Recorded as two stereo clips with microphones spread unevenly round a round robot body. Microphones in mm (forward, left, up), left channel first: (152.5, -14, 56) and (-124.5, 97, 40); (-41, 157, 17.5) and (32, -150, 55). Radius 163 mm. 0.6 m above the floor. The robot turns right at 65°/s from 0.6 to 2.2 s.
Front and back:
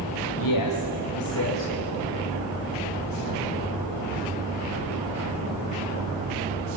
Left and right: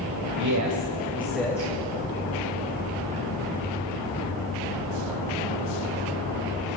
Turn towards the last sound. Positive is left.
turn(degrees=65)